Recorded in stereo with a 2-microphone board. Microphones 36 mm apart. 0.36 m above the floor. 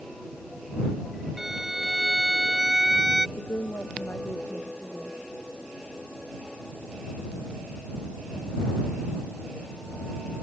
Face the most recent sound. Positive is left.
turn(degrees=85)